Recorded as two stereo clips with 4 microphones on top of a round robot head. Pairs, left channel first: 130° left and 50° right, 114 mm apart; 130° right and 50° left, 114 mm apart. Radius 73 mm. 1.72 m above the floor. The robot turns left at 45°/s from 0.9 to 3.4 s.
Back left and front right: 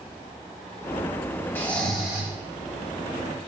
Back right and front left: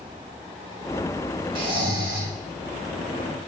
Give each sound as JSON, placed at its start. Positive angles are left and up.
{"t": 1.6, "sound": "snoring", "azimuth_deg": 55, "distance_m": 4.0}